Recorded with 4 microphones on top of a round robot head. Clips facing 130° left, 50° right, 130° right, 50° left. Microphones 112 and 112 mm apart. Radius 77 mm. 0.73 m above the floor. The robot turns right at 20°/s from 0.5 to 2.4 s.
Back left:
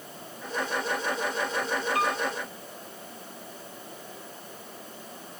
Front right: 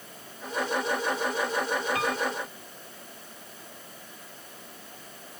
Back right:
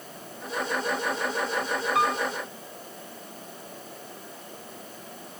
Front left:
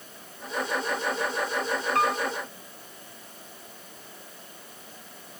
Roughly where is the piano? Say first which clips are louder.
Back left 1 dB, even; ahead right.